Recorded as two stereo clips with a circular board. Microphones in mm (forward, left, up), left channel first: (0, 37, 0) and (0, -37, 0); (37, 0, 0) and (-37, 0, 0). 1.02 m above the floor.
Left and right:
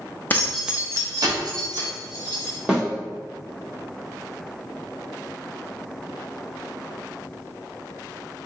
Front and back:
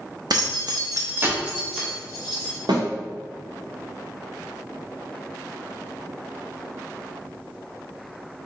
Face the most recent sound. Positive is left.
turn(degrees=-165)